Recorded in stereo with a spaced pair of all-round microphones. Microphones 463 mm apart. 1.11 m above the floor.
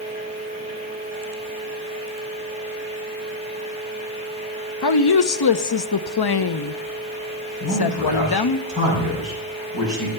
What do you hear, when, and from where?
0.0 s a fan: 15° right (ahead or behind), 3 m
4.8 s a woman speaking: 55° left (ahead or behind), 0.6 m
7.6 s a man speaking: 45° left (ahead or behind), 6 m